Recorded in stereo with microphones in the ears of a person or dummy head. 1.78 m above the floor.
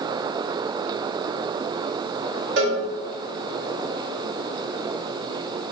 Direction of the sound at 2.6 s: 80° right.